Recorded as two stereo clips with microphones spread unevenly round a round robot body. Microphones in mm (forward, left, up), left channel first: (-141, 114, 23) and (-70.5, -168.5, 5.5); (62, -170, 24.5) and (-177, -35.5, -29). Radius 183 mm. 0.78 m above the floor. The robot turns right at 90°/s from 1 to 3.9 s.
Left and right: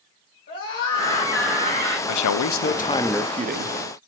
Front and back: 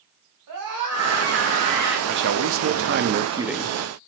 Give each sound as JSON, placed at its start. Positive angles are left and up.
{"t": 0.5, "sound": "a scream", "azimuth_deg": 160, "distance_m": 5.5}
{"t": 2.1, "sound": "a man speaking", "azimuth_deg": 100, "distance_m": 1.0}